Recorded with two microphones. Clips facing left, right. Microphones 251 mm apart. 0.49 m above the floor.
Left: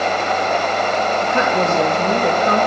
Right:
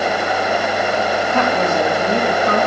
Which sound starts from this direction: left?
A woman speaking, at 1.2 s.